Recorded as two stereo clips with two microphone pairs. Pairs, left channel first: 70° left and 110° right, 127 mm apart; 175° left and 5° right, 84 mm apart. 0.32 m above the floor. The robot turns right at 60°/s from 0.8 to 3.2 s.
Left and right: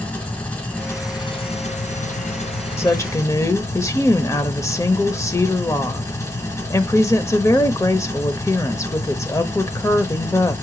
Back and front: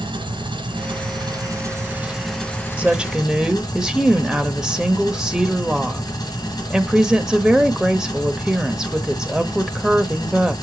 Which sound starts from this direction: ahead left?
A woman speaking, at 2.8 s.